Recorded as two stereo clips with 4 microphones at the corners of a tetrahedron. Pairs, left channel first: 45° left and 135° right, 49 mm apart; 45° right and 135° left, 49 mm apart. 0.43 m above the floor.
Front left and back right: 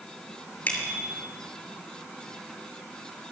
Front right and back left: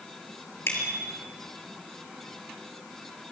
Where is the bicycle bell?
5° right, 6 m.